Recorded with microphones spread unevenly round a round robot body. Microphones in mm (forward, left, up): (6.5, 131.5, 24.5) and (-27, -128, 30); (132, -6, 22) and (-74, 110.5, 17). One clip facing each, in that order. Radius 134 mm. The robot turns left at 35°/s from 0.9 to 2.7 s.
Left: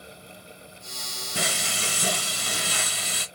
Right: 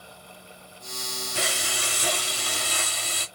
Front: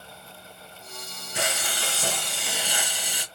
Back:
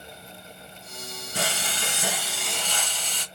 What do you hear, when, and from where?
1.4 s frying: 95° left, 2.5 m; by 3.2 s 50° left, 2.5 m